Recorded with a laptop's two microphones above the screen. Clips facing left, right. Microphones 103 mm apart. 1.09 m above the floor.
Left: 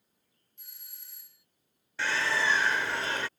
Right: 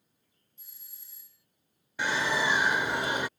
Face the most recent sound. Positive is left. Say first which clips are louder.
# right 1 dB
turn(degrees=-15)  # may be behind; listen again after turning